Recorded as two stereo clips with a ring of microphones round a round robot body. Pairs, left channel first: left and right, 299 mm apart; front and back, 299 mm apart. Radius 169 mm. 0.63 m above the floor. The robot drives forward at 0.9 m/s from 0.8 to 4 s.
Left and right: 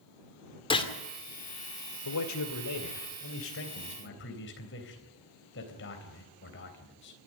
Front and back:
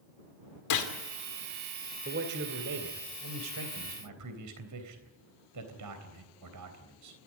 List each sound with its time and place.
0.7 s a gunshot: 20° left, 2.5 m
2.0 s a man speaking: 120° left, 2.5 m; by 7.2 s 145° left, 3.5 m